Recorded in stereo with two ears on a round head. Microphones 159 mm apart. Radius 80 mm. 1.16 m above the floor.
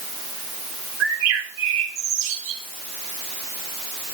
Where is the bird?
80° right, 3 m.